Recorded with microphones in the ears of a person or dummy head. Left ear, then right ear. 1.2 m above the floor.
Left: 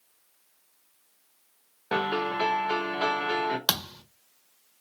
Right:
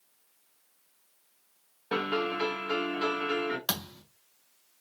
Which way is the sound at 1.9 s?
10° left (ahead or behind).